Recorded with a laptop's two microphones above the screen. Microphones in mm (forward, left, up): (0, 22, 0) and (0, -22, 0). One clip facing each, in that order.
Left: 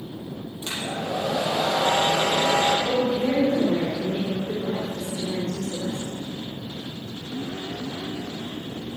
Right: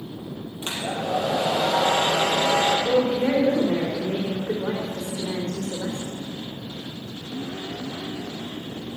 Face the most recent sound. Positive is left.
turn(degrees=-80)